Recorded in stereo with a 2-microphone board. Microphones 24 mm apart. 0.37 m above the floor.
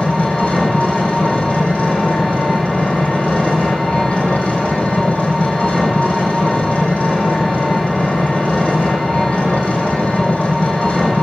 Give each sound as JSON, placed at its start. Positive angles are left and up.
{"t": 0.0, "sound": "an engine running", "side_deg": 60, "distance_m": 6.0}